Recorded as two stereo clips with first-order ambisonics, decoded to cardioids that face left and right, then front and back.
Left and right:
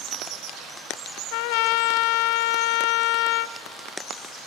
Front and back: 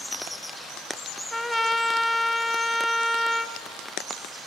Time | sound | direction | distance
1.3 | a trumpet | 90° left | 0.5 m